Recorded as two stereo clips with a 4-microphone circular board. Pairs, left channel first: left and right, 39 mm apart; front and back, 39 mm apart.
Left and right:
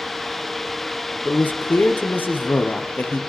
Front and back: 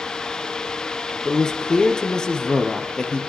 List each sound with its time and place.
1.2 s a man speaking: 70° left, 2 m